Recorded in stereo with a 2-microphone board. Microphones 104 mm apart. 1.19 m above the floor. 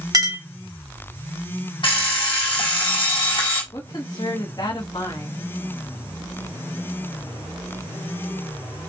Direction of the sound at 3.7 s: 45° left (ahead or behind).